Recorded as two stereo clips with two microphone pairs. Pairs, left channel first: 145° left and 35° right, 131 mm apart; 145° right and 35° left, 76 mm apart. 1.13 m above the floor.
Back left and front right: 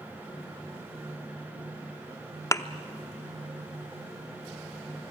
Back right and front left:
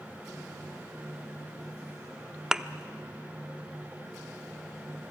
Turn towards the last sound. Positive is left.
turn(degrees=110)